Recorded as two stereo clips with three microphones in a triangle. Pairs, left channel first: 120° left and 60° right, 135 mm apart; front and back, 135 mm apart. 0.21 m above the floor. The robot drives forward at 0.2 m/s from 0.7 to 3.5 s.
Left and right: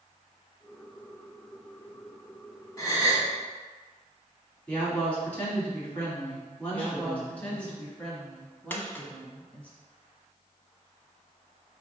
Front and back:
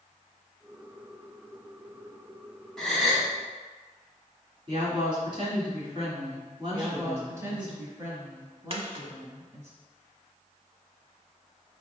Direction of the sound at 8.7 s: 175° right.